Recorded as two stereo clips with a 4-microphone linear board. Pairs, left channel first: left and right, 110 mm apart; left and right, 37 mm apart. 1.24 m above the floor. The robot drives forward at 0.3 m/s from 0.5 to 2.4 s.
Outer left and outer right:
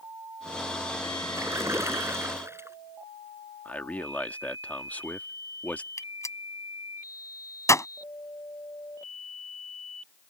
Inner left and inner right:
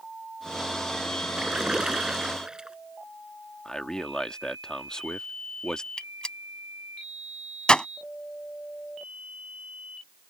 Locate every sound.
1.4 s a splash: 25° right (ahead or behind)
3.6 s a man speaking: 15° left (ahead or behind)
6.0 s a gunshot: 30° left (ahead or behind)